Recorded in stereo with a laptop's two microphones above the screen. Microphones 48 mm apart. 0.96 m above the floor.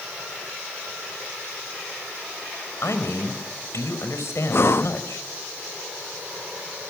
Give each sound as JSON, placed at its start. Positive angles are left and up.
{"t": 2.8, "sound": "a man speaking", "side_deg": 70, "distance_m": 4.5}
{"t": 4.5, "sound": "breathing", "side_deg": 55, "distance_m": 0.6}